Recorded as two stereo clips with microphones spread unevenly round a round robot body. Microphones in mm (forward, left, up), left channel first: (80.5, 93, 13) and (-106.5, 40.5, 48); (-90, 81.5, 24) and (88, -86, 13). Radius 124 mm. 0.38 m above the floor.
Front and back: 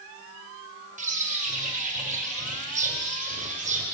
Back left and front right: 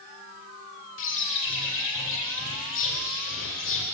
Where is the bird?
145° left, 1.7 m.